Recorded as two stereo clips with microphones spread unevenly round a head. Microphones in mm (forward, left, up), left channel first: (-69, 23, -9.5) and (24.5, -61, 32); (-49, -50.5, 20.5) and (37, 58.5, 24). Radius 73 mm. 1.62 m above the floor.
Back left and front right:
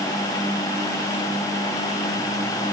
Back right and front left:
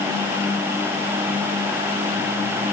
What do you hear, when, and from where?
Only background noise.